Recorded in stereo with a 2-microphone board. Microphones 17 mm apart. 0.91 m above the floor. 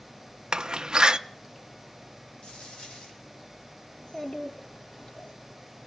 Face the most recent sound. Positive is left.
turn(degrees=75)  # may be behind; listen again after turning